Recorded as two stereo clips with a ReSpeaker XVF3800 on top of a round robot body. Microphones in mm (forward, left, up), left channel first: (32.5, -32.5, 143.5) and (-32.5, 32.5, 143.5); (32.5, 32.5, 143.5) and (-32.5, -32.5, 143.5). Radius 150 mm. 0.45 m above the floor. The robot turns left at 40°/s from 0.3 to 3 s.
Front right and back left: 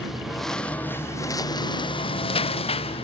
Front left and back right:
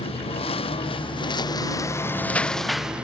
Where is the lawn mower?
45° left; by 3.0 s 55° right.